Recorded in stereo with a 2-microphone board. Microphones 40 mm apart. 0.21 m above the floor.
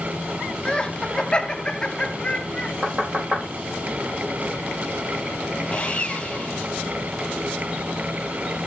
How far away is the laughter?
About 1.3 m.